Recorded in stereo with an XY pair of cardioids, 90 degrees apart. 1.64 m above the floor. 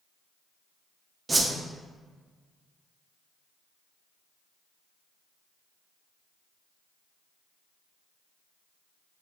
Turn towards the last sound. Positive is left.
turn(degrees=-20)